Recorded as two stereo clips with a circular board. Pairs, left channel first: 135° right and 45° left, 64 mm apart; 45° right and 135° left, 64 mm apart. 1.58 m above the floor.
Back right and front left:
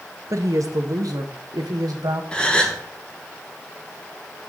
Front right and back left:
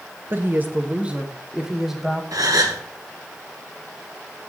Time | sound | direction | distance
0.3 | a woman speaking | 85° left | 1.1 m
2.3 | a gasp | 150° left | 1.4 m